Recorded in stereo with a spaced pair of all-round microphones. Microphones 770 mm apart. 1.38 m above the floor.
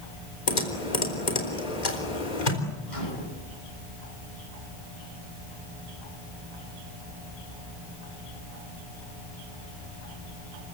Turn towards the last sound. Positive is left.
turn(degrees=65)  # may be behind; listen again after turning